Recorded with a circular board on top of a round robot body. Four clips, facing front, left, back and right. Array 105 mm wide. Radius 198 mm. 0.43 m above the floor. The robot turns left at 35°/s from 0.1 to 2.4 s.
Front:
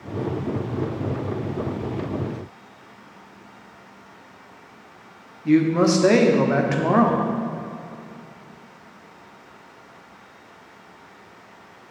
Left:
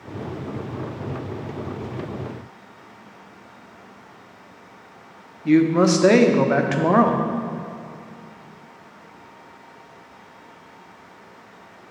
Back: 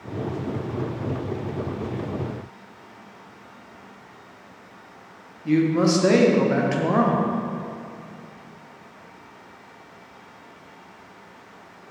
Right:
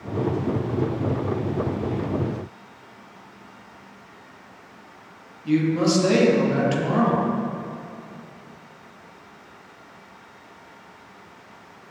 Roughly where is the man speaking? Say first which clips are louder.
Left 4 dB, front 2 dB; left.